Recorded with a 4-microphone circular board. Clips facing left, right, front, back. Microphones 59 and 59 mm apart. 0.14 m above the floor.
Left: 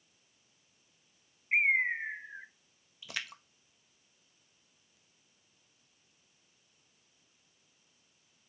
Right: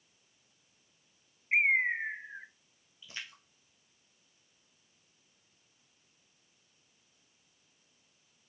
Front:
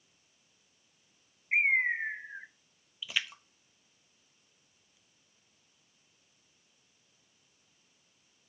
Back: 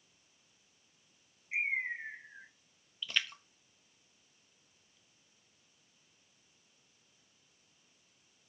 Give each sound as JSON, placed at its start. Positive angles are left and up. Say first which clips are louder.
{"t": 1.5, "sound": "a bird", "louder": "right 1 dB, front 8 dB", "azimuth_deg": -10, "distance_m": 0.7}
{"t": 3.0, "sound": "a splash", "louder": "left 5 dB, even", "azimuth_deg": 85, "distance_m": 0.6}